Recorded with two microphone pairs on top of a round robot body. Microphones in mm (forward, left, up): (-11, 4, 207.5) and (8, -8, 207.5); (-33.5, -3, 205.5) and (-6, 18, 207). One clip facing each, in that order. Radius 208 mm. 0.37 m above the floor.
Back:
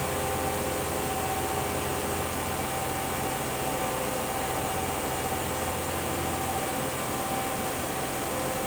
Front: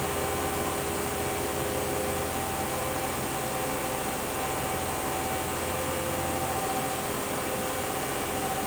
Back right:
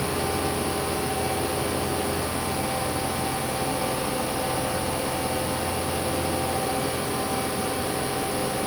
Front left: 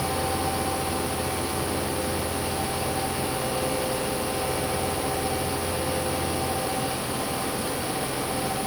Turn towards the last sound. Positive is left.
No sound to turn to.